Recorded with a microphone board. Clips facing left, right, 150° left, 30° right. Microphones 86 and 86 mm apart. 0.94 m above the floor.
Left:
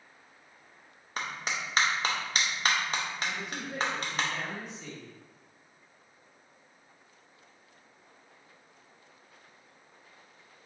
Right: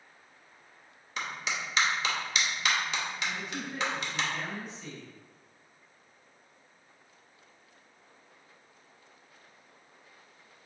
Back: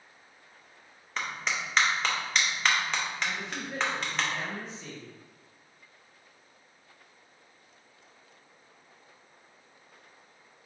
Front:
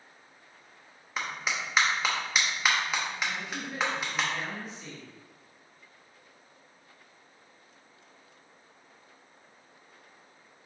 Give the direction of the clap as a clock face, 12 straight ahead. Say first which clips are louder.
Even, even; 10 o'clock.